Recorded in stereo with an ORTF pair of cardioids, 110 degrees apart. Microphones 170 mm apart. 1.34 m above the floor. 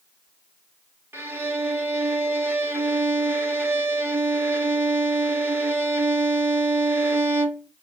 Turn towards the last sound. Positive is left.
turn(degrees=-15)